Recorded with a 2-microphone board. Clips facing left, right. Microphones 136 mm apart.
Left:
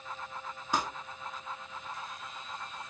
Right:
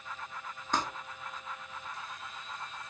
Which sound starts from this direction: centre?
Crumpling, at 0.7 s.